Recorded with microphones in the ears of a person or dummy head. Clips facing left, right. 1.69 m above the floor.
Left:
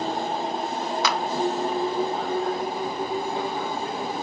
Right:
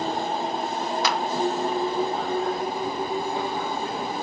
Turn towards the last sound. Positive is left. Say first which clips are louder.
# even
turn(degrees=70)  # may be behind; listen again after turning